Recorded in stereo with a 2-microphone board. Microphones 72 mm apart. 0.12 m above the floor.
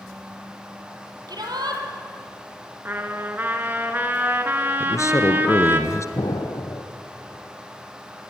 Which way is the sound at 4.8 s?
45° left (ahead or behind).